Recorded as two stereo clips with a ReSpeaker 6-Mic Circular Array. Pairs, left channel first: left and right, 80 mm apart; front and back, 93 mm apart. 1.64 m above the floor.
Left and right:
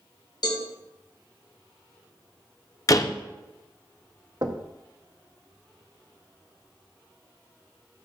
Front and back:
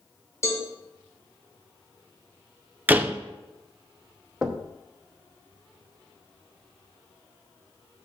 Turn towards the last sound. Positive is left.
turn(degrees=-95)